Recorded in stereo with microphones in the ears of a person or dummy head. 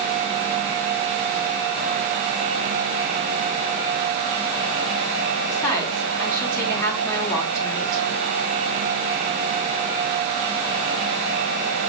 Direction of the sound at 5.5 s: 15° left (ahead or behind).